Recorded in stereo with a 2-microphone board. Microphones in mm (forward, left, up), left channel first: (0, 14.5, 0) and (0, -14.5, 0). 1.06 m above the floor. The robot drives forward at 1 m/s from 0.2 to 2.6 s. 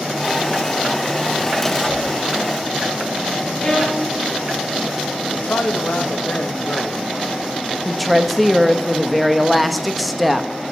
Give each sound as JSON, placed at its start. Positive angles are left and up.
{"t": 1.9, "sound": "a whoosh", "side_deg": 50, "distance_m": 8.0}
{"t": 3.6, "sound": "a violin", "side_deg": 30, "distance_m": 3.0}
{"t": 5.3, "sound": "a man speaking", "side_deg": 60, "distance_m": 1.4}
{"t": 7.8, "sound": "a woman speaking", "side_deg": 0, "distance_m": 1.1}